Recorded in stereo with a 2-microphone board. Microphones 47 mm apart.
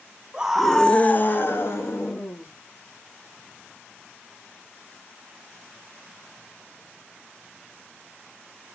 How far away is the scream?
About 0.8 m.